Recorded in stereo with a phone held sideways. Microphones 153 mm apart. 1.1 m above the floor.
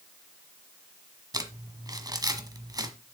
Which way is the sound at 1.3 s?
25° right (ahead or behind).